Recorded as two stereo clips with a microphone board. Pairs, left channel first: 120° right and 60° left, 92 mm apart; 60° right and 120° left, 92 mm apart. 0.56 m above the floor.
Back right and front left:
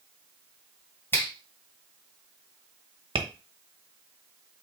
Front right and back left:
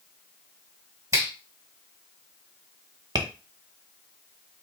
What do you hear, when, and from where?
1.1 s a finger snap: 175° left, 1.8 m
3.1 s tapping: 85° left, 0.9 m